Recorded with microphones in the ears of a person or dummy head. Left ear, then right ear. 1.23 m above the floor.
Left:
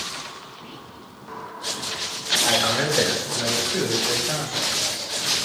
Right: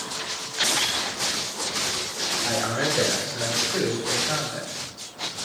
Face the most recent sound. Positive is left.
turn(degrees=-15)  # may be behind; listen again after turning